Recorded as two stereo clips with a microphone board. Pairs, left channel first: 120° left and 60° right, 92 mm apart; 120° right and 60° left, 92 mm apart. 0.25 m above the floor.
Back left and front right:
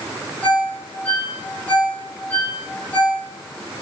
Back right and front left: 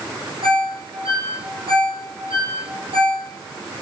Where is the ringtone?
45° left, 7.5 m.